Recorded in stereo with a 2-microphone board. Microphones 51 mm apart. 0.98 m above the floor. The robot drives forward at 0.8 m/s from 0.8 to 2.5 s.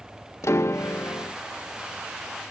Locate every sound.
0.4 s a piano: 65° left (ahead or behind); by 1.4 s 50° left (ahead or behind)